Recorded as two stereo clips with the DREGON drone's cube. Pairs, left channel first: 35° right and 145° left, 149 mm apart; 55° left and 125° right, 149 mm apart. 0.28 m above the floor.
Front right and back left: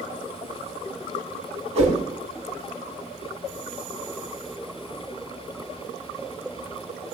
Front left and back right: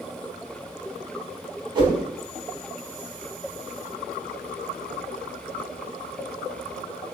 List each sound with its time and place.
1.8 s a whoosh: straight behind, 0.6 m